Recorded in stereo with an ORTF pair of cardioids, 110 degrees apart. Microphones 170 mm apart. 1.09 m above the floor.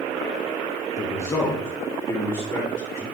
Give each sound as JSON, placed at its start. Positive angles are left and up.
{"t": 1.0, "sound": "a man speaking", "azimuth_deg": 20, "distance_m": 0.8}